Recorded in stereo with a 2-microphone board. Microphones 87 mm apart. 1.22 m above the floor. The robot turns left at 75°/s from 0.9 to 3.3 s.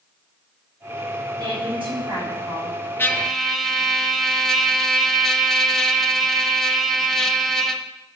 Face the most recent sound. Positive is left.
turn(degrees=5)  # may be behind; listen again after turning